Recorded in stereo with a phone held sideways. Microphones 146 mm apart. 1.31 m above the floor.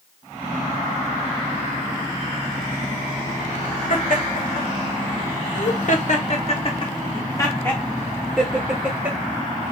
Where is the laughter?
70° left (ahead or behind), 1.9 m; by 9.7 s 20° right (ahead or behind), 1.7 m.